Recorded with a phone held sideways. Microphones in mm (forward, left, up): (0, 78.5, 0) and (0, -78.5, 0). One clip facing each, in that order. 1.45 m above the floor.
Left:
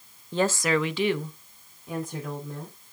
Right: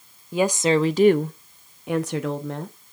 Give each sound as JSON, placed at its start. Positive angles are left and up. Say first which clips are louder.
{"t": 0.3, "sound": "a woman speaking", "louder": "right 4 dB", "side_deg": -5, "distance_m": 0.6}